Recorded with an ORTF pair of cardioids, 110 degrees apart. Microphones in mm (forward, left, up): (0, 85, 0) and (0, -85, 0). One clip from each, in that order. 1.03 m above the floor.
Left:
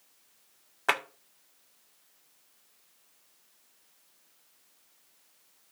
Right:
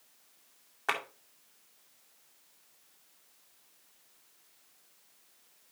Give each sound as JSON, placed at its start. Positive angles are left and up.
{"t": 0.9, "sound": "a clap", "azimuth_deg": 30, "distance_m": 2.0}